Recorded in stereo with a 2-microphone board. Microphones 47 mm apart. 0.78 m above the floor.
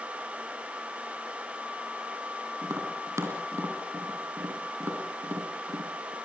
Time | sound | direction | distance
2.6 | tapping | 80° right | 4 m